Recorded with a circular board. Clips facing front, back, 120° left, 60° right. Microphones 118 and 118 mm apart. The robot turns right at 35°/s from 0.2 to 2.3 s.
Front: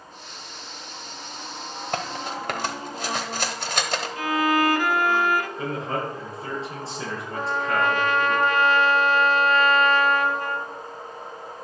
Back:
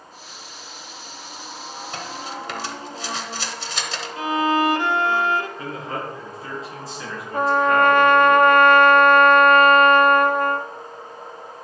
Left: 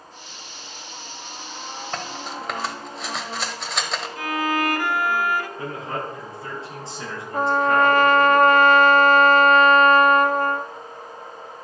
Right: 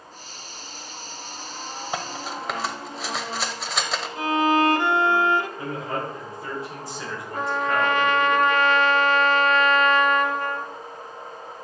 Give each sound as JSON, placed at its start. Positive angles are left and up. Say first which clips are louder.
{"t": 1.9, "sound": "cutlery clinking", "louder": "front 4 dB, right 1 dB", "azimuth_deg": 15, "distance_m": 1.0}
{"t": 4.2, "sound": "a violin", "louder": "back 2 dB, right 4 dB", "azimuth_deg": -120, "distance_m": 0.5}
{"t": 5.6, "sound": "a man speaking", "louder": "front 2 dB, even", "azimuth_deg": 60, "distance_m": 5.5}
{"t": 7.3, "sound": "a trumpet", "louder": "back 8 dB, left 5 dB", "azimuth_deg": 160, "distance_m": 0.5}